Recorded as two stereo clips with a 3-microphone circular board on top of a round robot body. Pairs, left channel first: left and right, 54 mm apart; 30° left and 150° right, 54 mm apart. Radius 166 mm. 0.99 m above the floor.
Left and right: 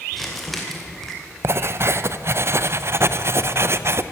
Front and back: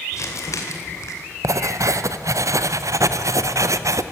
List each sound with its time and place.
0.1 s crumpling: 5° left, 2.5 m
1.4 s writing: 130° right, 0.8 m